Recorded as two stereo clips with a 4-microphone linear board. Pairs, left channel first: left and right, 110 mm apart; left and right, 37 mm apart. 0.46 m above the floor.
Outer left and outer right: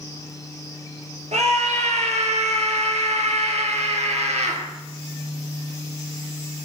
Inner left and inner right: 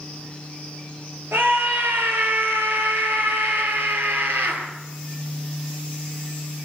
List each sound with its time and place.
1.3 s a scream: 85° right, 10 m